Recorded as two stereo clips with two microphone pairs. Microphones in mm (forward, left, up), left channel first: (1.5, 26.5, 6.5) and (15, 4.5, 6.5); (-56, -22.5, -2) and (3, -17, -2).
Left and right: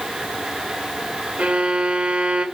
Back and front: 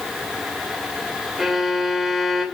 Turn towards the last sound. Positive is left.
turn(degrees=-80)